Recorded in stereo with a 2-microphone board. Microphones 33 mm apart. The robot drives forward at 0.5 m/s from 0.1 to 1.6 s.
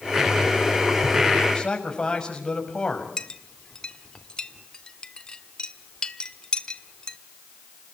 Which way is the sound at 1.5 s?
20° left (ahead or behind).